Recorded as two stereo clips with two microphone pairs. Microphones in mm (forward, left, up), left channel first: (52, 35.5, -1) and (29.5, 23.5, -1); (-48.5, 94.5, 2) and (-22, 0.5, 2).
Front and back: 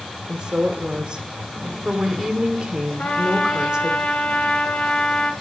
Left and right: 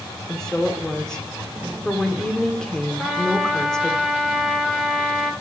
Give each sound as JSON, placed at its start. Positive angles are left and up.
{"t": 0.3, "sound": "a woman speaking", "azimuth_deg": 180, "distance_m": 0.9}
{"t": 3.0, "sound": "a trumpet", "azimuth_deg": 15, "distance_m": 1.1}